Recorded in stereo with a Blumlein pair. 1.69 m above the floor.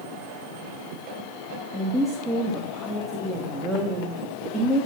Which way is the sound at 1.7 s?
5° right.